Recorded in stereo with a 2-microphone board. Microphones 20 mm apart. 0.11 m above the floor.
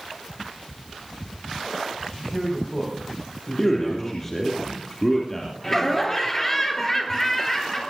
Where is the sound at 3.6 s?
20° left (ahead or behind), 3 m.